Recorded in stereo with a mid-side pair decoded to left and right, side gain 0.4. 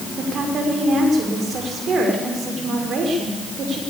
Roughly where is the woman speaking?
Ahead right.